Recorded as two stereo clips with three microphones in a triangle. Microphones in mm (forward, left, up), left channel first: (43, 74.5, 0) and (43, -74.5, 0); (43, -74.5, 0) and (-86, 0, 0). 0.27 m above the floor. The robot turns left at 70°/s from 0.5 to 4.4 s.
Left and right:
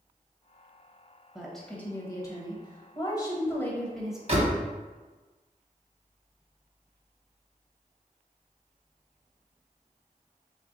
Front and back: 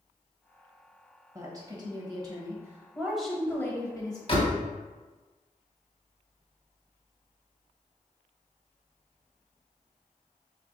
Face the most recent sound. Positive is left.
turn(degrees=-70)